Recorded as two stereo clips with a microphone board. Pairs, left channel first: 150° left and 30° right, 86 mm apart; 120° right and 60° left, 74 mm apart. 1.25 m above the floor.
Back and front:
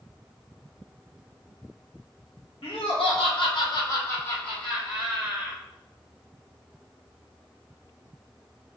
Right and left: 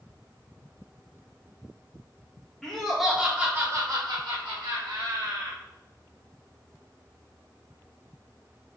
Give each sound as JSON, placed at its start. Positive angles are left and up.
{"t": 2.6, "sound": "laughter", "azimuth_deg": 155, "distance_m": 1.7}